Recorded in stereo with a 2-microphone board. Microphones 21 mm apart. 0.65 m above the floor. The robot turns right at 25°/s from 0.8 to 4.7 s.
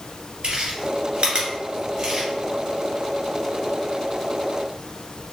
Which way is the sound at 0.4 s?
65° right (ahead or behind).